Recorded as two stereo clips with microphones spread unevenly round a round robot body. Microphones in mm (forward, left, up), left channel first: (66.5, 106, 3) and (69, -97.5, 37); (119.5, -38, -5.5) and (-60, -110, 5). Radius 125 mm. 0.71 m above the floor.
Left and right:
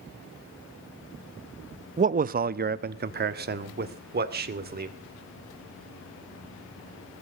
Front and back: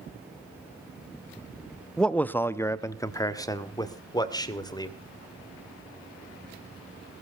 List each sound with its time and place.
2.0 s a man speaking: 55° right, 0.7 m; by 4.9 s 45° right, 2.5 m